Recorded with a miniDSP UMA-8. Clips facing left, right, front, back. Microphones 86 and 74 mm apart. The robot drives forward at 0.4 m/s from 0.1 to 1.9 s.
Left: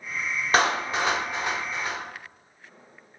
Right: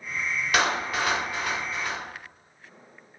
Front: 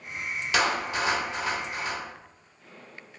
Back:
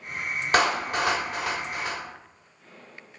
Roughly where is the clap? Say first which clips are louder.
Left 3 dB, back 3 dB; behind left.